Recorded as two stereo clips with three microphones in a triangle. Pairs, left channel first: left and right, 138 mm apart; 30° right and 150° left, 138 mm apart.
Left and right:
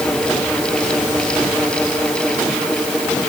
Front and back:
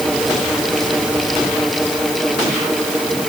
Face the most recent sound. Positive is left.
No sound to turn to.